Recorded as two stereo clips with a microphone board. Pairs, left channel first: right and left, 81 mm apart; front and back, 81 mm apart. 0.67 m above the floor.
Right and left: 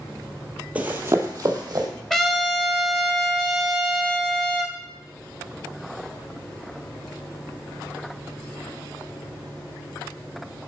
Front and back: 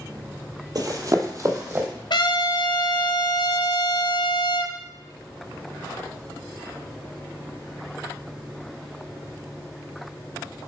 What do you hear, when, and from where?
0.8 s running footsteps: 160° left, 1.2 m; by 1.9 s 125° left, 1.9 m
2.1 s a trumpet: 5° right, 1.0 m